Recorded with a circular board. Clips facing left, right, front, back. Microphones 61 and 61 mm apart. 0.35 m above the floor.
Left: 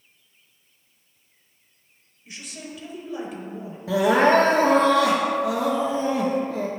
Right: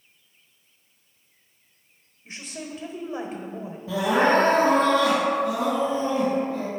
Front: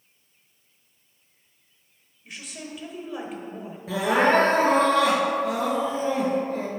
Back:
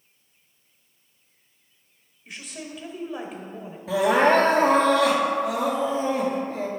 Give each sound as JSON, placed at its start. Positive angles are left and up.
{"t": 2.2, "sound": "a woman speaking", "azimuth_deg": -90, "distance_m": 1.1}
{"t": 3.9, "sound": "crying", "azimuth_deg": 90, "distance_m": 1.7}